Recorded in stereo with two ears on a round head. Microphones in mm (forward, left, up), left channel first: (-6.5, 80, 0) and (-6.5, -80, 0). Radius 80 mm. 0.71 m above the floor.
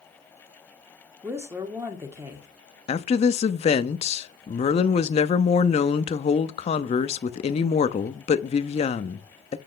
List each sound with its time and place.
1.2 s a woman speaking: 15° right (ahead or behind), 1.8 m
2.9 s a woman speaking: 35° left (ahead or behind), 0.8 m